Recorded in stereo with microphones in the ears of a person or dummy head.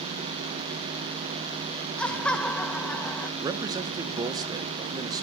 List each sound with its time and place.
2.0 s laughter: 10° left (ahead or behind), 1.1 m
3.4 s a man speaking: 20° right (ahead or behind), 0.7 m